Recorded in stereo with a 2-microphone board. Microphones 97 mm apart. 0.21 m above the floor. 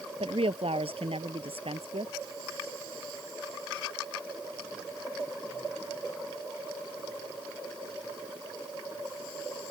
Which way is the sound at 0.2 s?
75° right (ahead or behind).